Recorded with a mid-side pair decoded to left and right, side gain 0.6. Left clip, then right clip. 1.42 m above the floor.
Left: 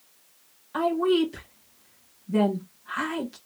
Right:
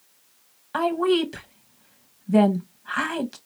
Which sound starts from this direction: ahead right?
A woman speaking, at 0.7 s.